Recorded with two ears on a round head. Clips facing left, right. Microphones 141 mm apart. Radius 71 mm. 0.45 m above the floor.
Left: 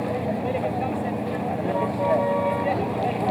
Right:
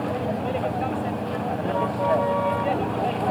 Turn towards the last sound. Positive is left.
turn(degrees=10)  # may be behind; listen again after turning